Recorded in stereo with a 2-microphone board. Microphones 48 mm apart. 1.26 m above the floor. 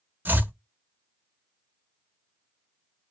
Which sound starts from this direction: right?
Chopping, at 0.2 s.